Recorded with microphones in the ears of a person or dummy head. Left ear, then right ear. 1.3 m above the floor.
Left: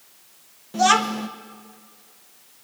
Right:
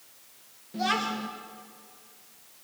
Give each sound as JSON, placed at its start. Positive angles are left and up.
{"t": 0.7, "sound": "a child speaking", "side_deg": 35, "distance_m": 0.7}